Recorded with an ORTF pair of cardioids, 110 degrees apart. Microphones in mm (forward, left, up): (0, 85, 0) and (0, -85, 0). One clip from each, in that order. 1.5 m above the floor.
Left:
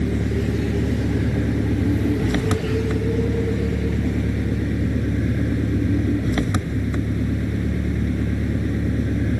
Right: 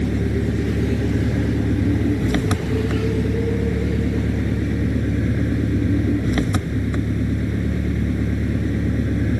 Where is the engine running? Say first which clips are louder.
Right 1 dB; 5° right.